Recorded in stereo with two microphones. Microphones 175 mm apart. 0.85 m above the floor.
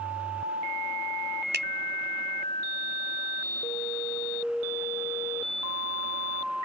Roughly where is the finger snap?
Right.